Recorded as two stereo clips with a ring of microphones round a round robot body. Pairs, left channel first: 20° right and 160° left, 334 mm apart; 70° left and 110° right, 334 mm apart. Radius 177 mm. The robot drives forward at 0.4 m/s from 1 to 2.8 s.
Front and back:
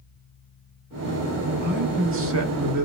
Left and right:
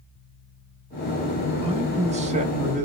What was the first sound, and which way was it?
A man speaking, 170° right.